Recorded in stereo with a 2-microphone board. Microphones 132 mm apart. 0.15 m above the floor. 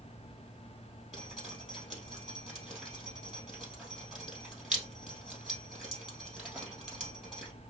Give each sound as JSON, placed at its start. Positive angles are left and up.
{"t": 1.1, "sound": "dripping", "side_deg": -5, "distance_m": 3.0}